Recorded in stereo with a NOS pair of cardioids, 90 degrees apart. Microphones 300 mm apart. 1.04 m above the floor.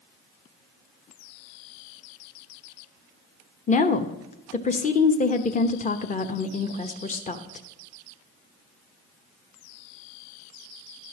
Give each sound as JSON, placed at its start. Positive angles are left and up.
{"t": 3.7, "sound": "a woman speaking", "azimuth_deg": 25, "distance_m": 1.0}